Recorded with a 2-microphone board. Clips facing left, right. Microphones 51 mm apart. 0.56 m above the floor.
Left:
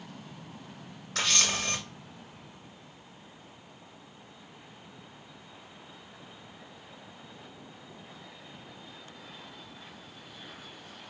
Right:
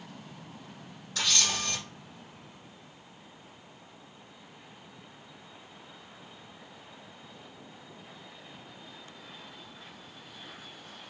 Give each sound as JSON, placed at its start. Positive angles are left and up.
{"t": 1.1, "sound": "a camera shutter", "side_deg": 60, "distance_m": 2.5}